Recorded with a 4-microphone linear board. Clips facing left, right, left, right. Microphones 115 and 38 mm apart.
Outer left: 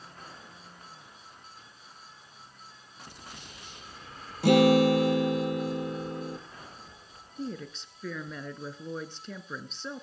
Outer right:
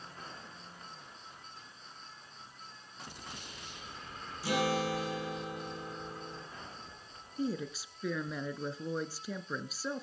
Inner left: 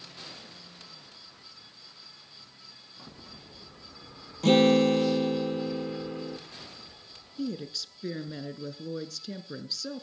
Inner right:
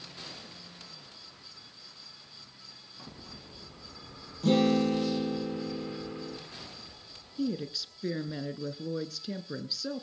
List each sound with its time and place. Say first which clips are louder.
4.4 s a guitar: outer left 12 dB, inner left 4 dB; 65° left (ahead or behind), 3.5 m
7.4 s a woman speaking: outer right 2 dB, inner right 2 dB; 5° right (ahead or behind), 1.4 m